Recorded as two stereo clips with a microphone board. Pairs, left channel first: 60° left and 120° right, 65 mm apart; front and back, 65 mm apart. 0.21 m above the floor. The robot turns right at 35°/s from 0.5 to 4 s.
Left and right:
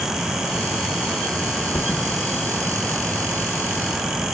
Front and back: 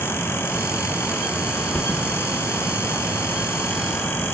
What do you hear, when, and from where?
1.7 s a thud: 65° left, 1.7 m; by 2.1 s 80° left, 1.7 m